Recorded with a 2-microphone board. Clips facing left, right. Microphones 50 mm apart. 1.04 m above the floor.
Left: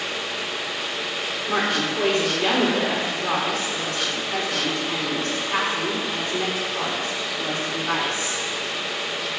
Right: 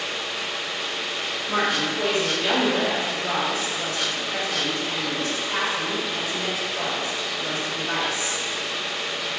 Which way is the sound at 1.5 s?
65° left (ahead or behind).